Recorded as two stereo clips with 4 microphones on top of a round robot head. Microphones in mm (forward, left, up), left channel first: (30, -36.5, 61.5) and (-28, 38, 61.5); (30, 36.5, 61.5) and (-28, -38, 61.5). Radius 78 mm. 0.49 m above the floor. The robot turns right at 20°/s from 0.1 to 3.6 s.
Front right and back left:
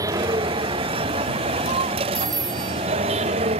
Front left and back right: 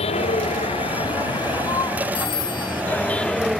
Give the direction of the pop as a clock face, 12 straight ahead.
I don't hear a pop.